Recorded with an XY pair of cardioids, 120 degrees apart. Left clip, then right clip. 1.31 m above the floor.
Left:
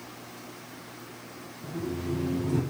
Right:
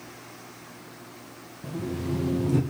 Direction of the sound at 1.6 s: 35° right.